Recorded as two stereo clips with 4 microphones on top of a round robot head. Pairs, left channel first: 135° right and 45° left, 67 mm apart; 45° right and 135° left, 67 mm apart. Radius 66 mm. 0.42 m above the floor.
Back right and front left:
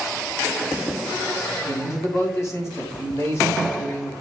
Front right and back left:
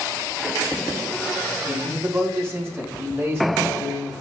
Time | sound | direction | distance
1.7 | a man speaking | 175° right | 3 m